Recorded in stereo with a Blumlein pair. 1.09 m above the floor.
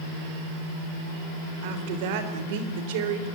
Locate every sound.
1.6 s a woman speaking: 50° right, 4 m